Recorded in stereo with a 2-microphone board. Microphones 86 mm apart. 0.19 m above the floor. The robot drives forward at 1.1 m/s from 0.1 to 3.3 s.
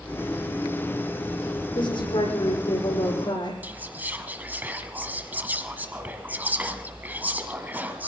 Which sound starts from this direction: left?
A woman speaking, at 1.8 s.